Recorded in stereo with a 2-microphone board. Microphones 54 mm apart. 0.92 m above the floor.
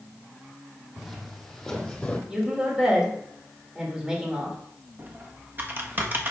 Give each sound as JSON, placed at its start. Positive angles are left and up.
{"t": 1.0, "sound": "footsteps", "side_deg": 0, "distance_m": 1.8}
{"t": 2.3, "sound": "a woman speaking", "side_deg": -15, "distance_m": 2.5}
{"t": 5.0, "sound": "typing on a keyboard", "side_deg": -35, "distance_m": 1.1}